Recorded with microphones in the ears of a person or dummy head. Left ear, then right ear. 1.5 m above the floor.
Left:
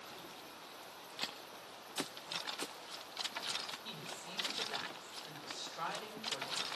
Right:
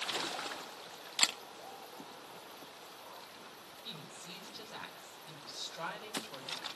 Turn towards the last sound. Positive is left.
turn(degrees=25)  # may be behind; listen again after turning